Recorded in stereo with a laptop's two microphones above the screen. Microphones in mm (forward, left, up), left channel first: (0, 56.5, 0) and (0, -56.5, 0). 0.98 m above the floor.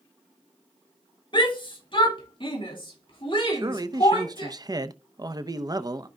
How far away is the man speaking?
About 0.7 m.